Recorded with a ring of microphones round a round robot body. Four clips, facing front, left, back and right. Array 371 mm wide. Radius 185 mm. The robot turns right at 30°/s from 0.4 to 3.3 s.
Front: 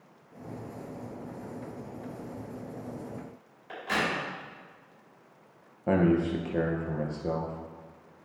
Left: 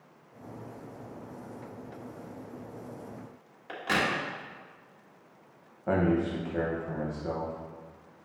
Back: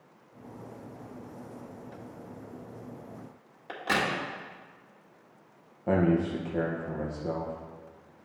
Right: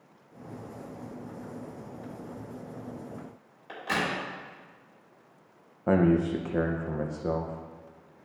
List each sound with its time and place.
3.7 s a crack: 165° left, 1.8 m
5.9 s a man speaking: 75° right, 0.7 m